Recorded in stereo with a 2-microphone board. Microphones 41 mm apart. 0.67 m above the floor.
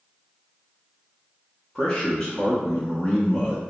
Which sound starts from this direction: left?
A man speaking, at 1.8 s.